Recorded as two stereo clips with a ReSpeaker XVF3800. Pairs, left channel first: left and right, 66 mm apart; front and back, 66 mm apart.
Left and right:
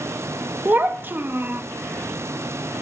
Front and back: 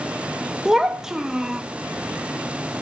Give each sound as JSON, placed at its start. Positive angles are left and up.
{"t": 0.7, "sound": "a child speaking", "azimuth_deg": -105, "distance_m": 0.5}